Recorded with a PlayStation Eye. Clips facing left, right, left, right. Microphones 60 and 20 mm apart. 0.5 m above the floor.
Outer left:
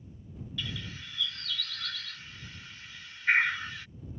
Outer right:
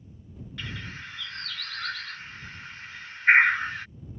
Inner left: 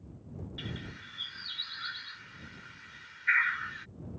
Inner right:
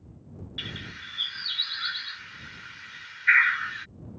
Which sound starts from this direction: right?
A bird, at 0.6 s.